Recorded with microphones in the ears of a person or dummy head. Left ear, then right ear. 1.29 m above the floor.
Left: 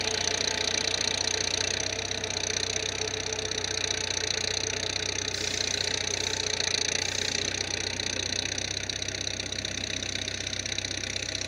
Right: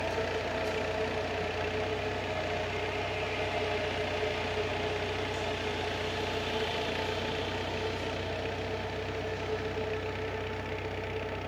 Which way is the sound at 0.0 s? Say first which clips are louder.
Left 4 dB; 85° left.